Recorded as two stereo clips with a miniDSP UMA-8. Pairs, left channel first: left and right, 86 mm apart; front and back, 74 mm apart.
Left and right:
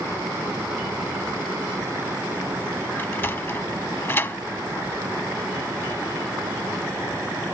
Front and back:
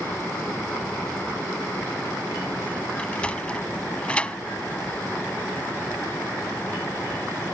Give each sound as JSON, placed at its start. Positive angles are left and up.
{"t": 3.0, "sound": "a sliding door", "azimuth_deg": 55}